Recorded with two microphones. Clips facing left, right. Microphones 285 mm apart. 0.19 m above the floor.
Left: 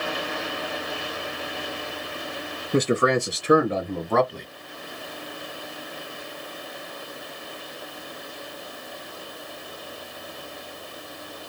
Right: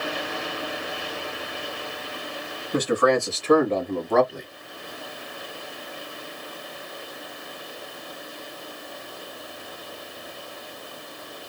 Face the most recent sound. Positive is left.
turn(degrees=-10)  # may be behind; listen again after turning